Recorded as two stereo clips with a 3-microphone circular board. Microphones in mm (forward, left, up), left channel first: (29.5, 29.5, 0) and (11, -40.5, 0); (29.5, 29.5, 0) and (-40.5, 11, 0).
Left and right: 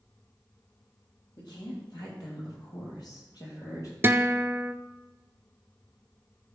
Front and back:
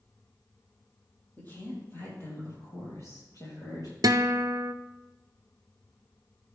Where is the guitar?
155° right, 0.6 m.